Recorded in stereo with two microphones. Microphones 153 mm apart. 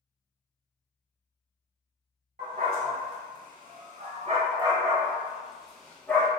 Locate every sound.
2.4 s a dog barking: 70° right (ahead or behind), 1.3 m; by 6.3 s 15° left (ahead or behind), 1.1 m